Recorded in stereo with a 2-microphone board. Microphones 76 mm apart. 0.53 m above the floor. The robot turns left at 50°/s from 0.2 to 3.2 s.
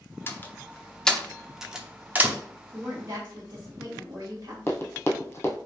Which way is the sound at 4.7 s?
30° left (ahead or behind).